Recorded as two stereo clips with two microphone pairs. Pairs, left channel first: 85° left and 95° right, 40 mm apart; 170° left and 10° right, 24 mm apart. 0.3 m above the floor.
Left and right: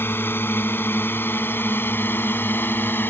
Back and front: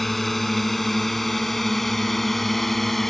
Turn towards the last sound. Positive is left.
turn(degrees=95)